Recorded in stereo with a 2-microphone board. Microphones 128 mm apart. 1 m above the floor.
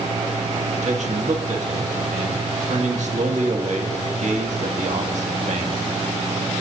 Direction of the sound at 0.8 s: 70° right (ahead or behind).